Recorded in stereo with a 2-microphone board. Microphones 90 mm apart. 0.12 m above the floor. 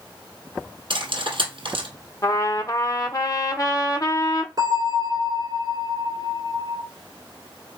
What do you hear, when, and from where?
0.9 s cutlery clinking: 65° right (ahead or behind), 1.9 m
2.2 s a trumpet: 40° left (ahead or behind), 0.7 m
4.6 s a bell: 45° right (ahead or behind), 2 m